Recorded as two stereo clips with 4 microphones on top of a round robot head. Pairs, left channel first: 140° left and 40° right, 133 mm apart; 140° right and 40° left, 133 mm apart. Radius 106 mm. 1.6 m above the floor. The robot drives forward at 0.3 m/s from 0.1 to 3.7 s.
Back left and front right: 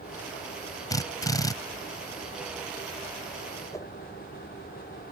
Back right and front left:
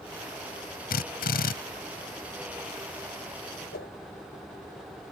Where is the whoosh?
150° right.